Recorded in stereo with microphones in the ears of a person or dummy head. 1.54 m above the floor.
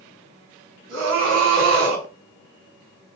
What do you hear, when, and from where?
0.9 s a scream: 80° right, 2.5 m